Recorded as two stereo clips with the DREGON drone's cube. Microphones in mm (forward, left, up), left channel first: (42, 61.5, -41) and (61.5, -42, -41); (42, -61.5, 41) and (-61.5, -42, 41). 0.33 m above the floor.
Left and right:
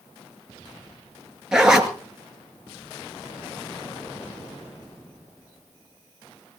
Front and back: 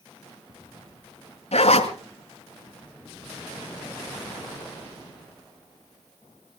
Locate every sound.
1.5 s a zipper: 5° left, 2 m